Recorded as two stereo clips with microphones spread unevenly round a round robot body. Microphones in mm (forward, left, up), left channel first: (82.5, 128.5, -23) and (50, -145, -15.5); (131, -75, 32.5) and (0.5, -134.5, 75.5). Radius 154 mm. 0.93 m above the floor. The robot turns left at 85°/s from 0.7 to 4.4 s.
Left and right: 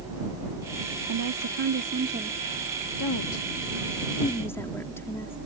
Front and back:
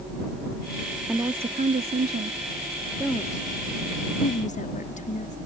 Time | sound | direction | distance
1.1 | a woman speaking | 75° right | ?